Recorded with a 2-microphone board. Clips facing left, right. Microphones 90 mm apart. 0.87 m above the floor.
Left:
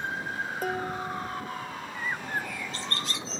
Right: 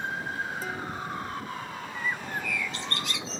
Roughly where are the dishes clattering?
Left.